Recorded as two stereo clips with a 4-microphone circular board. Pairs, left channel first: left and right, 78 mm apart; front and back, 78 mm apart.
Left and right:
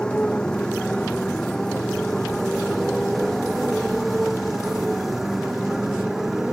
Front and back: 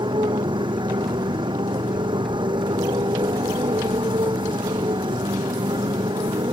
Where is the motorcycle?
170° left; by 6.5 s 175° right.